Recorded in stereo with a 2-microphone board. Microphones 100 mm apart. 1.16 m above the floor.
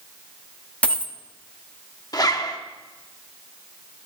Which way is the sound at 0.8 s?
15° left (ahead or behind).